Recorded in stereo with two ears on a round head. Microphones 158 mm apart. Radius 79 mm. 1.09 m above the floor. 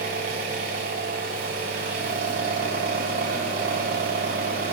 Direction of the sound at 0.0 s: 50° right (ahead or behind).